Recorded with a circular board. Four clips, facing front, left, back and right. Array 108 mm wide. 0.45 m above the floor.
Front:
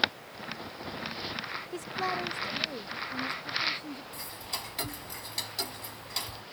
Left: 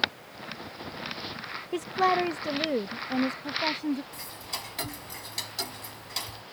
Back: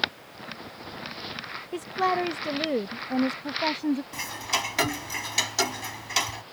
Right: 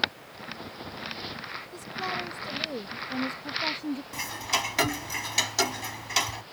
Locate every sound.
1.7 s a woman speaking: 110° left; by 4.0 s 170° left
4.1 s ticking: 135° right